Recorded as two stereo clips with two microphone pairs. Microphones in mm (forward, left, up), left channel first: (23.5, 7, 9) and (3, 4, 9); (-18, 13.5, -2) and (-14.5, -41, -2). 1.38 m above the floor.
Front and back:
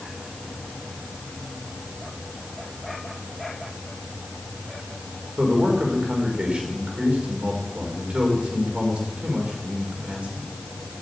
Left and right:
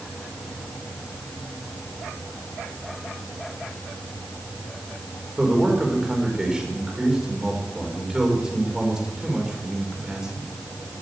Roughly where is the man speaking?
Behind.